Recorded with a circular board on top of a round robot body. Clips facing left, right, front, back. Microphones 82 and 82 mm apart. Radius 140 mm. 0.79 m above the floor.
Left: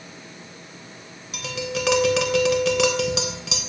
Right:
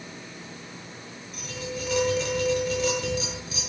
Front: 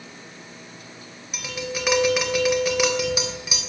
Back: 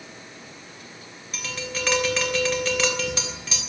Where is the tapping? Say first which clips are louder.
Left 7 dB, front 2 dB; 80° left, 3 m.